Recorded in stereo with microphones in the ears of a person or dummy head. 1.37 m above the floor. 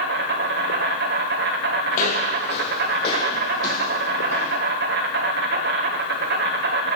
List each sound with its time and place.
0.0 s an insect: 55° right (ahead or behind), 1.8 m
1.9 s footsteps: 45° left (ahead or behind), 3 m; by 4.6 s 20° left (ahead or behind), 5.5 m